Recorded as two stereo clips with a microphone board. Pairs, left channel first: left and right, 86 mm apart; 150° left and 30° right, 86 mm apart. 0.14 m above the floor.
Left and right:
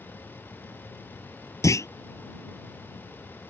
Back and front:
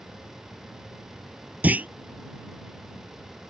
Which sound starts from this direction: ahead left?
A clunk, at 1.6 s.